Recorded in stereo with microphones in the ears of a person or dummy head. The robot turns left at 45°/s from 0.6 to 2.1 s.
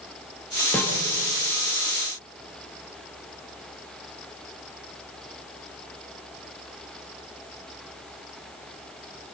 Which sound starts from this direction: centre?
A snare drum, at 0.7 s.